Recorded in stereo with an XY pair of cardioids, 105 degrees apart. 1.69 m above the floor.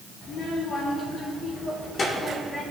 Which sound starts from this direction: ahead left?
A child speaking, at 0.2 s.